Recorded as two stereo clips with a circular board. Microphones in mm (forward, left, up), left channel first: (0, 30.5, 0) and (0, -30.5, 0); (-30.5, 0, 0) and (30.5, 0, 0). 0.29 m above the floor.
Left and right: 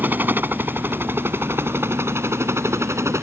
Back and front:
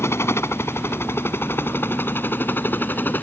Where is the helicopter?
145° right; by 3.2 s 125° right.